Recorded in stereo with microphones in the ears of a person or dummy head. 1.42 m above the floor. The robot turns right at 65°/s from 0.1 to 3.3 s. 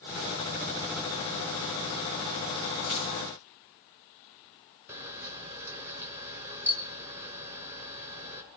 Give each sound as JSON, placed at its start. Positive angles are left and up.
{"t": 2.9, "sound": "keys jangling", "side_deg": 35, "distance_m": 1.2}
{"t": 4.9, "sound": "a camera shutter", "side_deg": -10, "distance_m": 0.8}